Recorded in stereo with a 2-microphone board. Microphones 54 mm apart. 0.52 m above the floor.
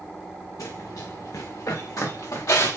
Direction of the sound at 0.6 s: 80° left.